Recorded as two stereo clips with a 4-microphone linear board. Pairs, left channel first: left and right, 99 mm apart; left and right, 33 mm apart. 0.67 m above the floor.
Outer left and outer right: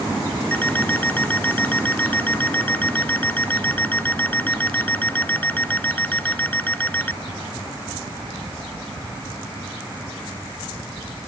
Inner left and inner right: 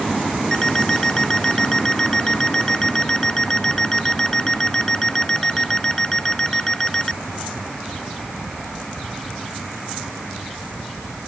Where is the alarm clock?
15° left (ahead or behind).